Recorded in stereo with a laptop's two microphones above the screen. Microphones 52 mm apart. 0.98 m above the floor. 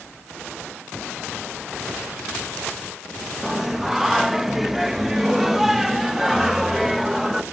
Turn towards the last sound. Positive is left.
turn(degrees=-5)  # may be behind; listen again after turning